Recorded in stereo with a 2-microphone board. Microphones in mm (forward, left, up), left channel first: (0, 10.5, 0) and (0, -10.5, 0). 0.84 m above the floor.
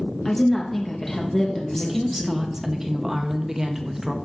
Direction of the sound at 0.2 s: 15° left (ahead or behind).